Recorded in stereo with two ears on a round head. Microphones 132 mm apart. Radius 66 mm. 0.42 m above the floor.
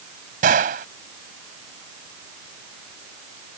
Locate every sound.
0.4 s a gunshot: 60° right (ahead or behind)